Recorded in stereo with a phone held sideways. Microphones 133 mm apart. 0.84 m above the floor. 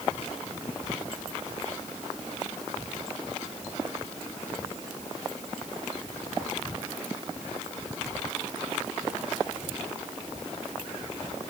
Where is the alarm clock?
No alarm clock in this recording.